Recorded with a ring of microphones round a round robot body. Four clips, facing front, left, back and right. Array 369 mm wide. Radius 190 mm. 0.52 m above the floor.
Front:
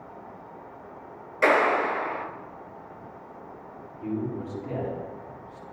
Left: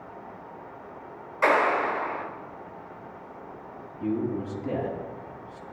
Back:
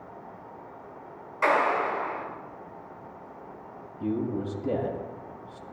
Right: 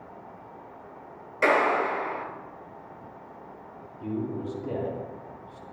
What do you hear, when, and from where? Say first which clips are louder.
1.4 s a clap: even, front 2 dB; 45° right, 4.5 m
4.0 s a man speaking: left 3 dB, back 2 dB; 160° left, 5 m